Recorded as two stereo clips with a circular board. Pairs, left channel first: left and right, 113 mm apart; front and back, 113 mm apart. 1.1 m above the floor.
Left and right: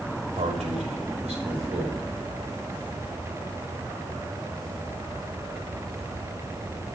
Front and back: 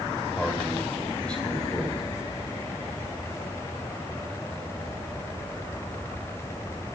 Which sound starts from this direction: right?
A man speaking, at 0.4 s.